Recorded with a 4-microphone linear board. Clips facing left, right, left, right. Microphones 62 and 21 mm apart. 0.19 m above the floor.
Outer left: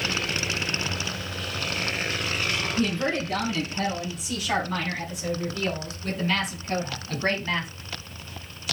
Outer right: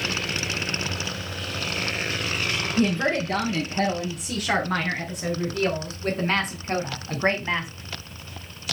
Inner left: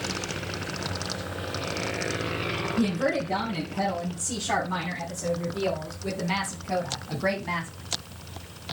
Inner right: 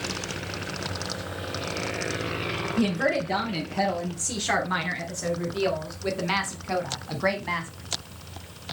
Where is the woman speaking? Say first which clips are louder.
Outer right 5 dB, inner right 2 dB; 60° right (ahead or behind), 4.5 m; by 7.7 s 15° right (ahead or behind), 1.5 m.